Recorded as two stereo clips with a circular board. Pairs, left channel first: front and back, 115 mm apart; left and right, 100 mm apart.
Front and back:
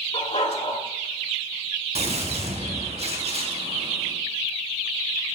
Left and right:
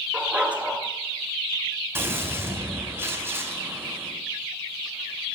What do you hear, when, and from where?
0.1 s a dog barking: 15° right, 1.9 m
1.9 s a gunshot: 155° right, 3.5 m